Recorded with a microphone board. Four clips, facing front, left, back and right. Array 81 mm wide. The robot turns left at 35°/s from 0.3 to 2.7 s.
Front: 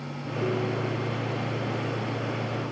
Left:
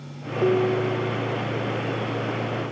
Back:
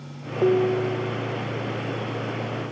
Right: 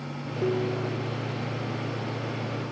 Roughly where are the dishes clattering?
Behind left.